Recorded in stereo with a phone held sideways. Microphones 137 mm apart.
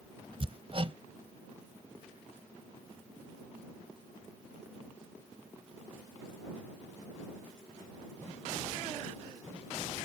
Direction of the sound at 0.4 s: 40° right (ahead or behind).